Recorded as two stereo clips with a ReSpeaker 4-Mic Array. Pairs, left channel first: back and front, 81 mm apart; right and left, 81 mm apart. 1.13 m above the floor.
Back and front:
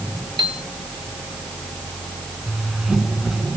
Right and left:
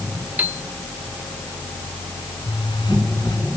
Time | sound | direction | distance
0.4 | a piano | 20° left | ?
2.5 | a zipper | 85° right | ?